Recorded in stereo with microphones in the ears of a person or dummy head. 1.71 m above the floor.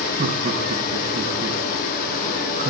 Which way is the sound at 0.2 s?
50° right (ahead or behind).